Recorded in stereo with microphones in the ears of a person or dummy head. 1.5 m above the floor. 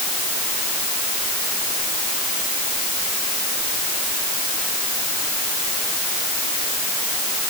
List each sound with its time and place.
Only background noise.